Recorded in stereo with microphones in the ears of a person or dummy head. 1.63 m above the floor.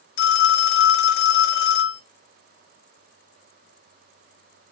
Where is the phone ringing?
60° left (ahead or behind), 1.0 m.